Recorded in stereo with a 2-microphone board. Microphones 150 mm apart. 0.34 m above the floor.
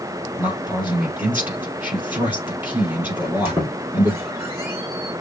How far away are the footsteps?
No footsteps in this recording.